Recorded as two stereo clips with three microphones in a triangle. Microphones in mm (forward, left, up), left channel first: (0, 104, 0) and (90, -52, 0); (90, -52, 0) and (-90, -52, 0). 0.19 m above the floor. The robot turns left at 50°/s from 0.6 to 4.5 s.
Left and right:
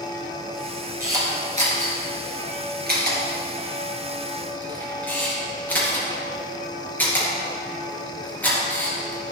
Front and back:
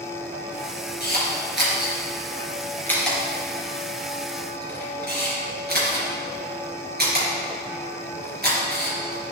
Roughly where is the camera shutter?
Ahead.